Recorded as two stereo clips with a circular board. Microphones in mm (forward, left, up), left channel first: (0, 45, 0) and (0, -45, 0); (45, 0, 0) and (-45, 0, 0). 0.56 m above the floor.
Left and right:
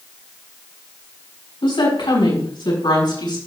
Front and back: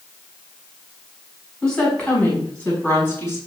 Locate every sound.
1.6 s a woman speaking: 80° left, 5.5 m; by 3.4 s 65° left, 6 m